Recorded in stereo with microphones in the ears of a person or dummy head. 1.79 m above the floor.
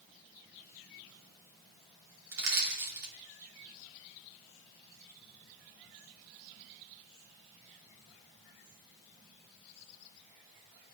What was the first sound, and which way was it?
Crushing, 70° right (ahead or behind).